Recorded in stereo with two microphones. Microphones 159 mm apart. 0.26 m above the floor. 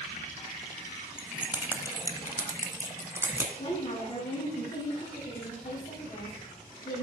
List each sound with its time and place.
1.2 s keys jangling: 5° right (ahead or behind), 1.6 m; by 3.5 s 15° right (ahead or behind), 2.5 m
3.6 s a woman speaking: 35° left (ahead or behind), 5 m